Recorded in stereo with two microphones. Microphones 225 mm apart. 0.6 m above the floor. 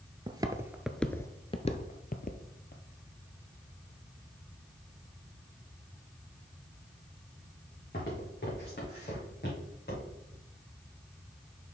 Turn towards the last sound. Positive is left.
turn(degrees=50)  # may be behind; listen again after turning